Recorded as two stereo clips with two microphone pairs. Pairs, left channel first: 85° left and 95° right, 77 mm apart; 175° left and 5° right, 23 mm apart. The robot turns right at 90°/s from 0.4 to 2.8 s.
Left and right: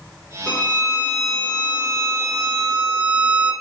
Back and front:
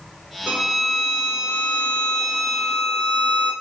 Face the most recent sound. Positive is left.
turn(degrees=-165)